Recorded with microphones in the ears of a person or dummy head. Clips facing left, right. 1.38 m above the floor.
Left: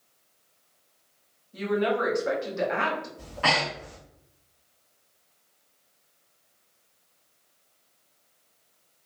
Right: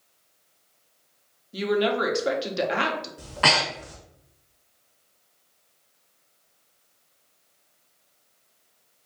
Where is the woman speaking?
45° right (ahead or behind), 0.7 m.